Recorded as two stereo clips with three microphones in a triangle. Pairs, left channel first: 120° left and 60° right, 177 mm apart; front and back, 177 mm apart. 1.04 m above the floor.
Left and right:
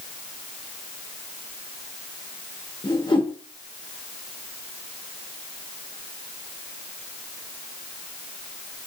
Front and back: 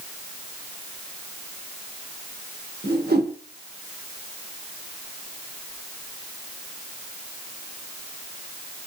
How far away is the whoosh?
About 1.2 m.